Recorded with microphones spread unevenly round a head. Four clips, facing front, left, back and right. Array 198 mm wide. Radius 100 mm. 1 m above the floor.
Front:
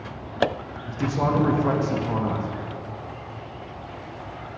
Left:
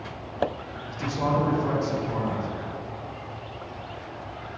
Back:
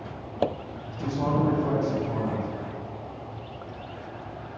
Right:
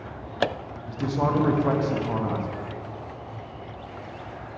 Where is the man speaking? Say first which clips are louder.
Right 2 dB, front 4 dB; 25° right, 0.9 m.